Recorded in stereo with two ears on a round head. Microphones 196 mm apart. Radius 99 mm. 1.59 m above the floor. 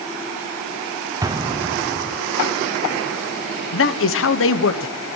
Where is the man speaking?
65° left (ahead or behind), 1.2 m.